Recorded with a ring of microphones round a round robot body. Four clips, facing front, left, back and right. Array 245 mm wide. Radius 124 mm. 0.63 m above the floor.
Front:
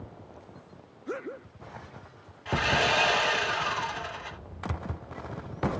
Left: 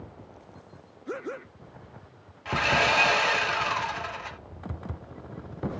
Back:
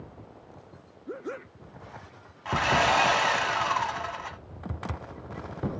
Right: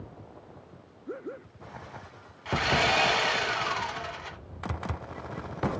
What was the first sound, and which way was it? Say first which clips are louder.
Sawing: left 1 dB, back 3 dB; 160° left.